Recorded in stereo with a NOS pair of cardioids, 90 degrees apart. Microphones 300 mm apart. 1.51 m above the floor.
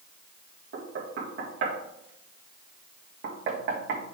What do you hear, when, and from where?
0.7 s knocking: 40° right, 1.8 m